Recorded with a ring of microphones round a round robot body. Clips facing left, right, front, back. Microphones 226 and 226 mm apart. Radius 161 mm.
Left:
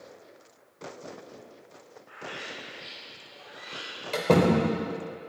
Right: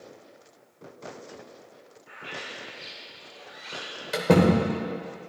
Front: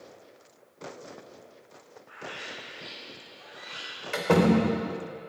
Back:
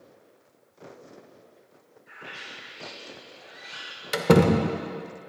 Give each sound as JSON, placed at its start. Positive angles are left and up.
{"t": 2.1, "sound": "a bird", "azimuth_deg": -135, "distance_m": 2.5}
{"t": 4.1, "sound": "a door slam", "azimuth_deg": -165, "distance_m": 0.7}